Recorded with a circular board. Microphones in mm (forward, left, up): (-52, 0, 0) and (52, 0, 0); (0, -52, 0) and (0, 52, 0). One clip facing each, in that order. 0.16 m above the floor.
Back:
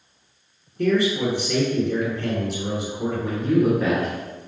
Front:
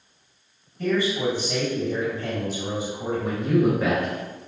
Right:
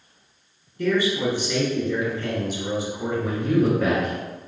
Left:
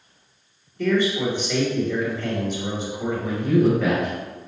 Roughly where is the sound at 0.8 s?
Behind.